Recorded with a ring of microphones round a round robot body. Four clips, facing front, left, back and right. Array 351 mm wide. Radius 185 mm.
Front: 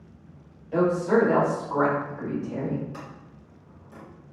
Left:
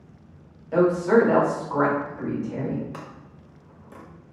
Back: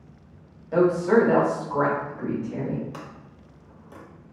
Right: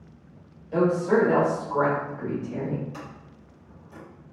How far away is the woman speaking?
About 1.0 m.